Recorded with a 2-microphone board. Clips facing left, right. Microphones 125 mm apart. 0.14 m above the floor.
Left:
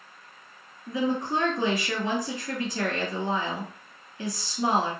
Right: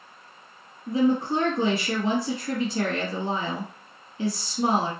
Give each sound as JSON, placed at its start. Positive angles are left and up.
{"t": 0.9, "sound": "a woman speaking", "side_deg": -30, "distance_m": 1.7}